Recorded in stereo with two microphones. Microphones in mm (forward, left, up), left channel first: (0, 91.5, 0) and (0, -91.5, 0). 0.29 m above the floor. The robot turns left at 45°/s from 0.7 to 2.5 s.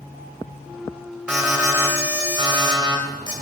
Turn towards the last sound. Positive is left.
turn(degrees=-25)  # may be behind; listen again after turning